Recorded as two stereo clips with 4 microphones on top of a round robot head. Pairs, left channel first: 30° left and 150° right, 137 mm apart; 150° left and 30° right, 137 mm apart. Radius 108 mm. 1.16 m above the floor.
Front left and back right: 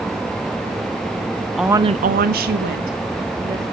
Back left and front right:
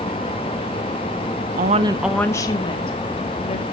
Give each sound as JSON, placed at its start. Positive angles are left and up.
{"t": 1.6, "sound": "a woman speaking", "azimuth_deg": -60, "distance_m": 0.7}